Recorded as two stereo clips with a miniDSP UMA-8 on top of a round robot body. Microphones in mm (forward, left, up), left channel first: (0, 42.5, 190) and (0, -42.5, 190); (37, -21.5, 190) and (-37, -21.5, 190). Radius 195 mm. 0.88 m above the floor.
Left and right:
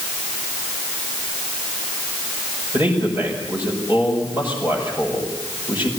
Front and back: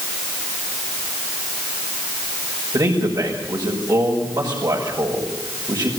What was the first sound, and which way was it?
A man speaking, 150° right.